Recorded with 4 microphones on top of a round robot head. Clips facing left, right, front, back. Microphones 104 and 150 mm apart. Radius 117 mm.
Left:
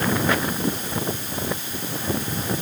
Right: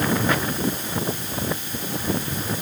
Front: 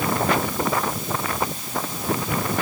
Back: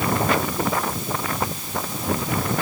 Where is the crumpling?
I don't hear crumpling.